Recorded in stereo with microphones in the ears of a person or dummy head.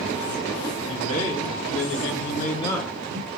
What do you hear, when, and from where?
0.9 s a man speaking: 85° left, 1.8 m; by 3.3 s 35° right (ahead or behind), 0.8 m